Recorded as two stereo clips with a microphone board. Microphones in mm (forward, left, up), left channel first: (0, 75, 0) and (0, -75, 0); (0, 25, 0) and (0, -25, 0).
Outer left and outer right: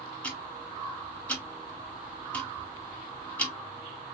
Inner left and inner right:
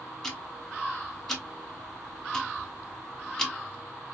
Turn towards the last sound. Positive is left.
turn(degrees=10)  # may be behind; listen again after turning